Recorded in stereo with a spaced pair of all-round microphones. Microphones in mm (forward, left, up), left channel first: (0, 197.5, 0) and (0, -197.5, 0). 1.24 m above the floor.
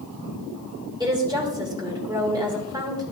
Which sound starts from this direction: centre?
A woman speaking, at 1.0 s.